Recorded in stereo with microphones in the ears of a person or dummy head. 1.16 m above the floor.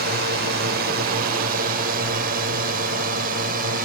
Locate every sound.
0.0 s a drone: 60° right (ahead or behind); by 3.9 s 55° right (ahead or behind)